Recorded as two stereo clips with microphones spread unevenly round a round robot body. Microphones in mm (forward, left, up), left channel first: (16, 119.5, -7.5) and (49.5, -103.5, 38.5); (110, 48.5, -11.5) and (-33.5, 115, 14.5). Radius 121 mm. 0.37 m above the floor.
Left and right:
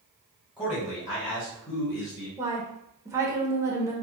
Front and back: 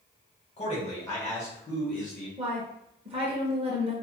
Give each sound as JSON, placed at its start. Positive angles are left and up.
{"t": 0.6, "sound": "a man speaking", "azimuth_deg": 25, "distance_m": 1.8}
{"t": 2.4, "sound": "a woman speaking", "azimuth_deg": -170, "distance_m": 1.1}